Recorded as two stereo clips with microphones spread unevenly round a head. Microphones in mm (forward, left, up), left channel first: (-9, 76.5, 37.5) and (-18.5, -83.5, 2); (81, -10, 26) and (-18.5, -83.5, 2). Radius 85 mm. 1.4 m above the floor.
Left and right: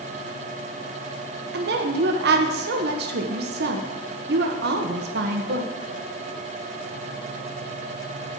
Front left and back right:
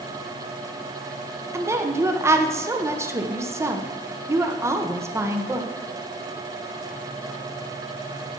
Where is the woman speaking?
75° right, 1.0 m.